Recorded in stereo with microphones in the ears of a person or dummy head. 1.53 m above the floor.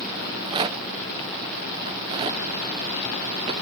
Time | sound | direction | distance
0.2 | a rattle | 20° right (ahead or behind) | 0.7 m